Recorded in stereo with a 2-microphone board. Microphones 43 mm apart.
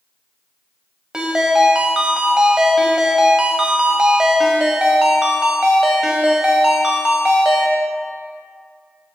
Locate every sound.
1.1 s a ringtone: 20° right (ahead or behind), 0.8 m